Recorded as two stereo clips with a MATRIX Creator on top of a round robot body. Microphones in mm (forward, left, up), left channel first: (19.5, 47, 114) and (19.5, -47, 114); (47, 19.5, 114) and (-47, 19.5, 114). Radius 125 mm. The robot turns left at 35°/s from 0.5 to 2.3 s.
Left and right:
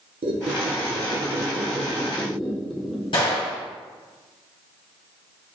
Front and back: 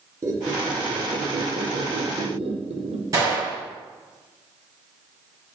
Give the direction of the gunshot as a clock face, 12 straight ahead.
8 o'clock.